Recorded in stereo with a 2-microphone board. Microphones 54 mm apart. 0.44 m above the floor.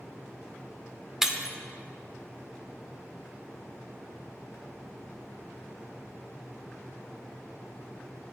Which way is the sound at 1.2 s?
10° right (ahead or behind).